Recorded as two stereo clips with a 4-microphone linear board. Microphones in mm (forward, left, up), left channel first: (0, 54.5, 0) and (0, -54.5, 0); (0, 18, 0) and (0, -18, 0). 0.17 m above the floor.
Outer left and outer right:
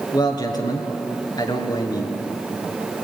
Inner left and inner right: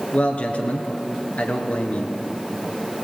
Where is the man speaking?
40° left (ahead or behind), 3 m.